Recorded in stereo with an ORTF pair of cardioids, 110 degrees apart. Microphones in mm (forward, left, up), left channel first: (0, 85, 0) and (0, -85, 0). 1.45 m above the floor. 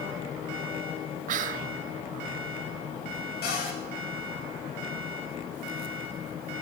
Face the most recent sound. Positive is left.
turn(degrees=65)